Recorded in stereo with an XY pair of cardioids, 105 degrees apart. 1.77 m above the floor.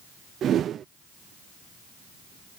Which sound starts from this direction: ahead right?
A whoosh, at 0.4 s.